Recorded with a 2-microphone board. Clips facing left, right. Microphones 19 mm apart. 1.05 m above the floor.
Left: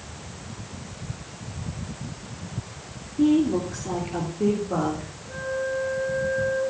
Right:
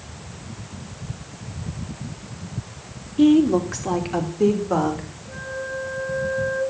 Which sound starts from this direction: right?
A woman speaking, at 3.2 s.